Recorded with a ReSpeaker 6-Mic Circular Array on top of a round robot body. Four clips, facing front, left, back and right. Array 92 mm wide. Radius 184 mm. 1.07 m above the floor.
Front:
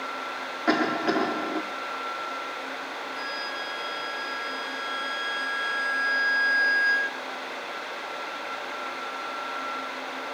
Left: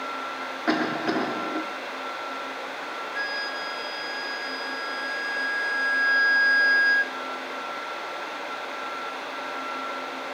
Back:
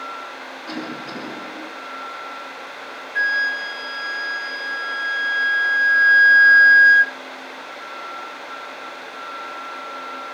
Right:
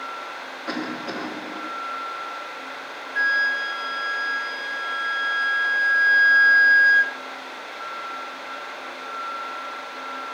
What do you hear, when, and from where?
0.7 s a cough: 50° left, 4.5 m
3.1 s a flute: 175° right, 2.5 m